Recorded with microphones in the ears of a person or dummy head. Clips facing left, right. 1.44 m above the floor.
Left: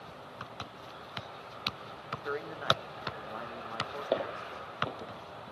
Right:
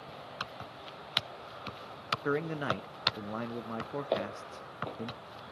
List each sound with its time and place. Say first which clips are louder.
2.2 s a man speaking: right 3 dB; 45° right (ahead or behind), 0.6 m
4.1 s footsteps: left 2 dB; 10° left (ahead or behind), 2.5 m